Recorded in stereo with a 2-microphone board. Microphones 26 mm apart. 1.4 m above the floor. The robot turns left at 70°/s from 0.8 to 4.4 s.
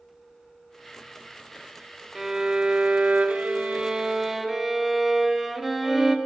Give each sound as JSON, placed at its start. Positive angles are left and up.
{"t": 2.1, "sound": "a violin", "azimuth_deg": -10, "distance_m": 1.0}